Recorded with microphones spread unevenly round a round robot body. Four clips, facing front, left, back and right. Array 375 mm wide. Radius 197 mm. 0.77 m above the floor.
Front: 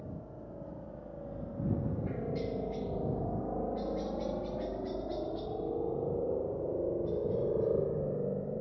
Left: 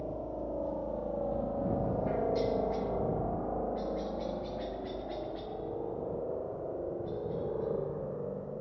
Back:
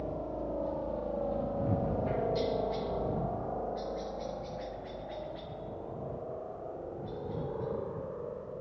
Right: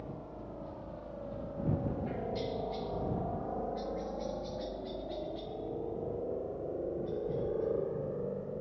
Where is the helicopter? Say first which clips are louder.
Left 7 dB, back 9 dB; 145° left; by 8.6 s 5° right.